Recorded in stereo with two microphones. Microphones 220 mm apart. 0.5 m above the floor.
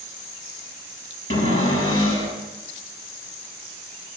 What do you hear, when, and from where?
1.3 s a cupboard door: 75° left (ahead or behind), 5 m